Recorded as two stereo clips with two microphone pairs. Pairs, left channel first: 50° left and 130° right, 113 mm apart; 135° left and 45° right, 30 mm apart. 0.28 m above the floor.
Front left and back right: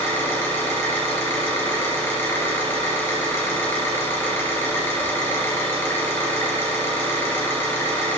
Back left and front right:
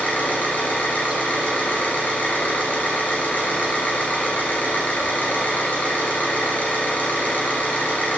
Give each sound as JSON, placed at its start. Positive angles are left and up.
{"t": 0.0, "sound": "an engine running", "azimuth_deg": 120, "distance_m": 3.5}